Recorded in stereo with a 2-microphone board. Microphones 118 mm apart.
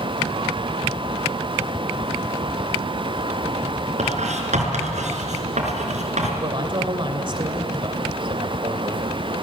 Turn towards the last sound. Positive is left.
turn(degrees=-45)  # may be behind; listen again after turning